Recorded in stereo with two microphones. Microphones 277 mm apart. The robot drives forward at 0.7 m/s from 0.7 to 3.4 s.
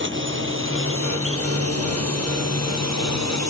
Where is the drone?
40° right (ahead or behind); by 3.5 s 65° right (ahead or behind).